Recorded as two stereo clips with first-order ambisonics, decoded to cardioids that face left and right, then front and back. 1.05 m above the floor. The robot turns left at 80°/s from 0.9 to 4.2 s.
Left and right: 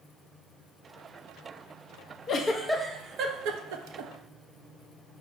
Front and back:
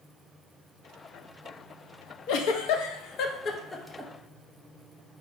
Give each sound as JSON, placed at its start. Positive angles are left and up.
{"t": 2.3, "sound": "a giggle", "azimuth_deg": 35, "distance_m": 0.5}